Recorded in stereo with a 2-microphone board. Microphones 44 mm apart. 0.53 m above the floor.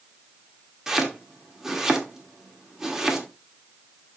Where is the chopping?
10° right (ahead or behind), 1.4 m.